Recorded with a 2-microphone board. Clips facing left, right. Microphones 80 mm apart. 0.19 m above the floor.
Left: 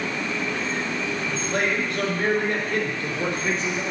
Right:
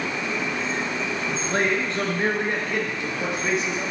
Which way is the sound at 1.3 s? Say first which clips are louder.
Right 2 dB; 35° right (ahead or behind).